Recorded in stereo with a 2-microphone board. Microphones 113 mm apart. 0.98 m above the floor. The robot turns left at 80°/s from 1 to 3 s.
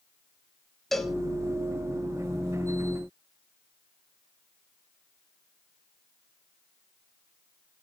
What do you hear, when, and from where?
0.9 s a cowbell: 5° left (ahead or behind), 0.9 m; by 1.1 s 5° right (ahead or behind), 0.9 m